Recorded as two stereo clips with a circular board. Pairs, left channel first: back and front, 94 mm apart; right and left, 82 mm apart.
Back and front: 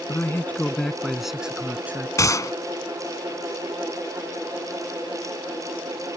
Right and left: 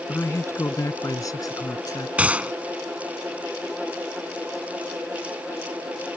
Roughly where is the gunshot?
Behind left.